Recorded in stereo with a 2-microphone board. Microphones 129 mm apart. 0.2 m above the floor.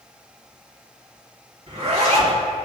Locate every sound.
1.7 s a zipper: 55° right (ahead or behind), 2.5 m